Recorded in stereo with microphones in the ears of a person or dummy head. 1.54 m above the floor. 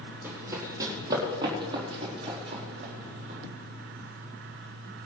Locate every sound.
0.2 s running footsteps: 10° right (ahead or behind), 3.5 m; by 3.4 s 40° right (ahead or behind), 4.5 m